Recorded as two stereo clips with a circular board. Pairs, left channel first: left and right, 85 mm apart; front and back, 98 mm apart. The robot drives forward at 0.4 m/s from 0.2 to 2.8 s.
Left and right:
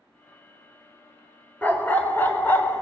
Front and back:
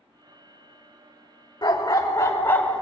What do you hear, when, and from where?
1.6 s a dog barking: 25° left, 0.8 m; by 2.8 s 70° left, 0.5 m